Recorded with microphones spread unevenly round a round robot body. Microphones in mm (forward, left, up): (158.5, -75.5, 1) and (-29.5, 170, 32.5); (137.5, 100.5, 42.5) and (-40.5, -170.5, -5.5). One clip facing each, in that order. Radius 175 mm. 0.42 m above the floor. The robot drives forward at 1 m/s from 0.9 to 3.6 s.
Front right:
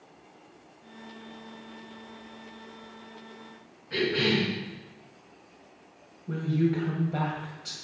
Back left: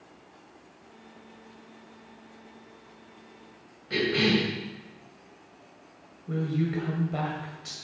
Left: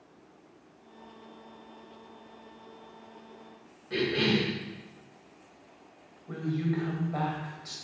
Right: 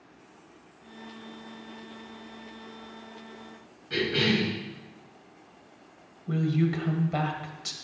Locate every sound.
3.9 s a cough: 165° left, 3 m
6.3 s a woman speaking: 145° right, 1.8 m